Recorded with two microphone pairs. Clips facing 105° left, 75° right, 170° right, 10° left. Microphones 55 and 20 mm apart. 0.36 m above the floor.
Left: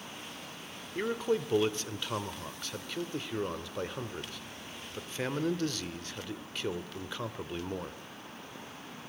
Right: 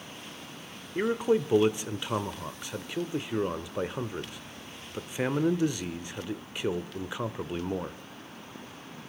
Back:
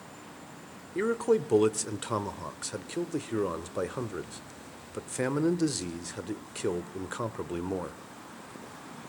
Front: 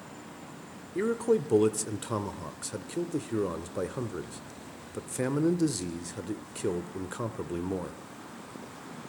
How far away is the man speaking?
About 0.9 m.